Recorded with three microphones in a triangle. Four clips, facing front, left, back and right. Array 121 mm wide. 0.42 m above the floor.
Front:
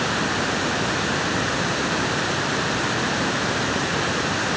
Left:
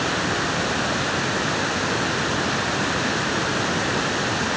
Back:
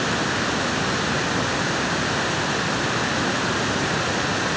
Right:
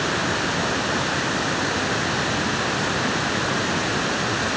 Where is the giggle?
No giggle in this recording.